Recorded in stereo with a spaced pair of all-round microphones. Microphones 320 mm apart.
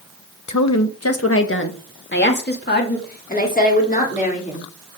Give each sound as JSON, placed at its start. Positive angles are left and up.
{"t": 0.5, "sound": "a woman speaking", "side_deg": 65, "distance_m": 1.0}